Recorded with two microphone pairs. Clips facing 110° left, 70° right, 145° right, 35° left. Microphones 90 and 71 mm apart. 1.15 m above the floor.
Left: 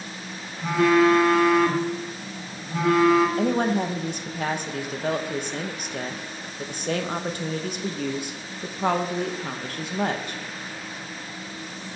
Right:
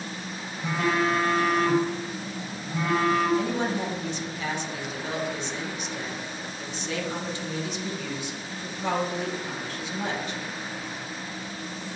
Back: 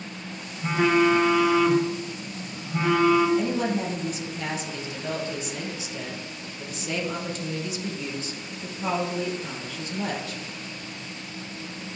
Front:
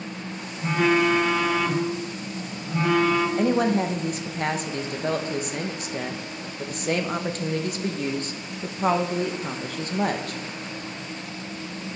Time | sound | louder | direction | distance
0.6 | a phone buzzing | left 7 dB, even | 130° left | 2 m
3.4 | a woman speaking | left 5 dB, front 4 dB | 75° left | 1.0 m